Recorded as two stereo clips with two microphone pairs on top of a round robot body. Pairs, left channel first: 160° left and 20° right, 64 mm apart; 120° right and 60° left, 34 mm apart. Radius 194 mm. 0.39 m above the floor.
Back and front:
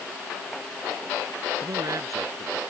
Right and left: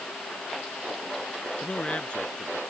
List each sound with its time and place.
1.6 s a man speaking: 60° right